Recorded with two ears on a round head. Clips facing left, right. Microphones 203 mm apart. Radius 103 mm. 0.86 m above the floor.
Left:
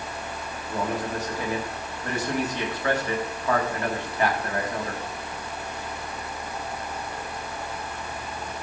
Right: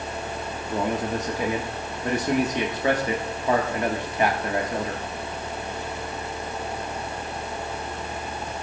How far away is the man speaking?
About 1.7 m.